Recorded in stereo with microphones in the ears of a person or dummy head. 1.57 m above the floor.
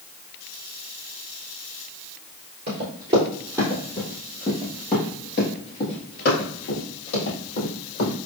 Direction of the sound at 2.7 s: 20° right (ahead or behind).